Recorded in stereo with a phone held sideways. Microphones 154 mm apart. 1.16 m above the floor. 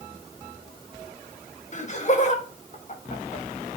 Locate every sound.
1.7 s laughter: 50° left (ahead or behind), 1.8 m